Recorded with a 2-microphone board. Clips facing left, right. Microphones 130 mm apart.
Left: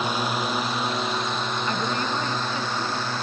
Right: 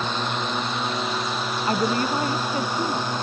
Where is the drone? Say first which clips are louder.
Left 1 dB; 10° left (ahead or behind); by 3.2 s 15° right (ahead or behind).